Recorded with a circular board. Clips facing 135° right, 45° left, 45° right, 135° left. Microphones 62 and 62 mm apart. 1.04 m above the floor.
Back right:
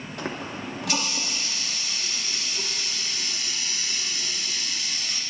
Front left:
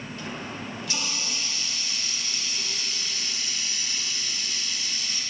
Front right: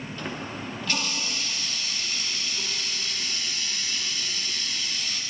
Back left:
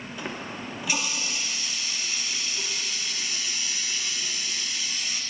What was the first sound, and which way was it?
A running tap, 145° right.